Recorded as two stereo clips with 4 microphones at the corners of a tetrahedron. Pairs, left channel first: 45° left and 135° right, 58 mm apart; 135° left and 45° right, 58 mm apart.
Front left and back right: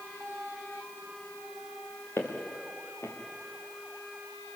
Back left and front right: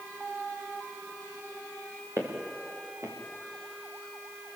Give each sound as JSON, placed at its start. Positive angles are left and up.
{"t": 2.2, "sound": "footsteps", "azimuth_deg": 0, "distance_m": 4.5}